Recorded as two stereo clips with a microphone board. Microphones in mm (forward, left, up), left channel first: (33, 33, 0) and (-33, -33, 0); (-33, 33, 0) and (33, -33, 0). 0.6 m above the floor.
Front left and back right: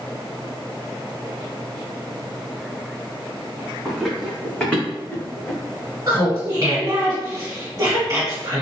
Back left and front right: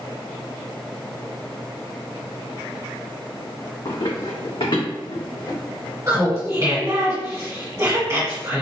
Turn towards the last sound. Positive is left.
turn(degrees=-85)